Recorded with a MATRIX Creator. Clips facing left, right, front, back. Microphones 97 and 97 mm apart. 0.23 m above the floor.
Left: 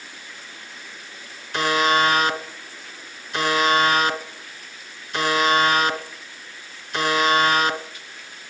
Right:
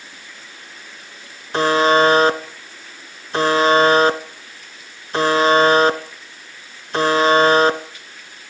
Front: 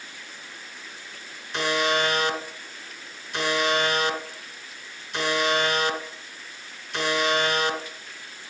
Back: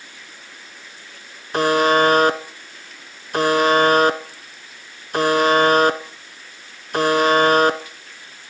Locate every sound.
1.5 s a buzzer: 140° right, 0.7 m